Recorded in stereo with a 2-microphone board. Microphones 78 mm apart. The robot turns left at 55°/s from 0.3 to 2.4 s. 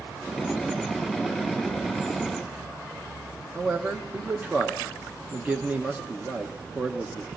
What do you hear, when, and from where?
3.5 s a man speaking: 20° right (ahead or behind), 0.7 m